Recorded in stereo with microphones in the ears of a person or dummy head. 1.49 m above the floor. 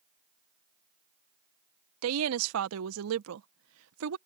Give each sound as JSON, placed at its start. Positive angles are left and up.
{"t": 2.0, "sound": "a woman speaking", "side_deg": -85}